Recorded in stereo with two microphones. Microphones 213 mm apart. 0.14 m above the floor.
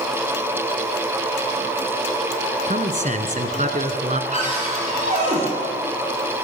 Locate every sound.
2.7 s a man speaking: 35° right (ahead or behind), 1.6 m
4.3 s a cupboard door: 35° right (ahead or behind), 6.5 m